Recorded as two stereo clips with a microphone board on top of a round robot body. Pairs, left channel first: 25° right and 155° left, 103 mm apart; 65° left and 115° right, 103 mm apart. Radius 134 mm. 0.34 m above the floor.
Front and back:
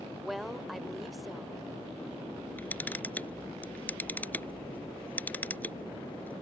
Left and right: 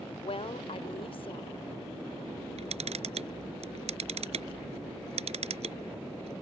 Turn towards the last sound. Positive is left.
turn(degrees=-95)